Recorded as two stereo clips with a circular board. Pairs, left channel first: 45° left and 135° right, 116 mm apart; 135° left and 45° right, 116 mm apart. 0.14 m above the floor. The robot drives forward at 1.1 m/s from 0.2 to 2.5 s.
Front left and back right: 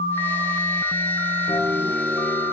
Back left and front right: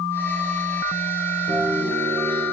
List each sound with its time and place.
1.5 s a guitar: 25° right, 4 m; by 2.4 s 30° right, 3 m